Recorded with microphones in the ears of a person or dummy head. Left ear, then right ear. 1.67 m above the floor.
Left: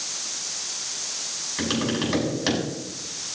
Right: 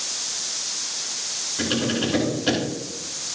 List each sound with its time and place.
1.6 s tapping: 60° left (ahead or behind), 7 m